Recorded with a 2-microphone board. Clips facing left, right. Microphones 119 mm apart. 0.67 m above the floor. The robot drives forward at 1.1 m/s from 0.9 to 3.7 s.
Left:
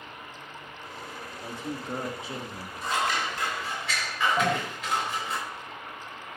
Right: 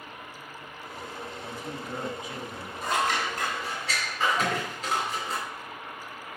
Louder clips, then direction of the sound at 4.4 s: Left 3 dB; 55° left (ahead or behind).